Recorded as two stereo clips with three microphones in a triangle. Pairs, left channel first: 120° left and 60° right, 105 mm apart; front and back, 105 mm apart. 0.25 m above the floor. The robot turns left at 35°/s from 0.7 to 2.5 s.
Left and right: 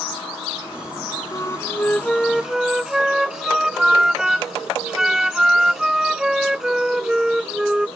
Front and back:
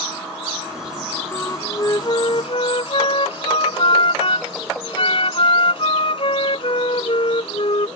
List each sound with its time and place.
1.3 s a flute: 65° left; by 7.9 s 25° left